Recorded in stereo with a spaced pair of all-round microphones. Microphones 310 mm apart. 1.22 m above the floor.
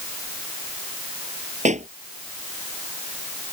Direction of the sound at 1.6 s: 25° right (ahead or behind).